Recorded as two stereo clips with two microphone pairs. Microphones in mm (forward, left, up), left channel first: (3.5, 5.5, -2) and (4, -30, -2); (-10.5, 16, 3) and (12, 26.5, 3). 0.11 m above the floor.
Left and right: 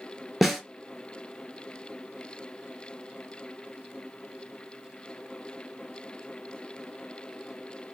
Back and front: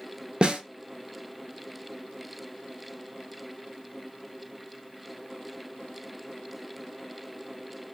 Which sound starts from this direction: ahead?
A snare drum, at 0.4 s.